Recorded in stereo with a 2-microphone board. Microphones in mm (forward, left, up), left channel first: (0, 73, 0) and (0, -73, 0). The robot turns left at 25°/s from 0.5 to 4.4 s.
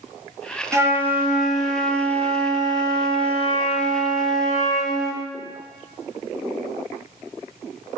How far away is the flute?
About 1.1 m.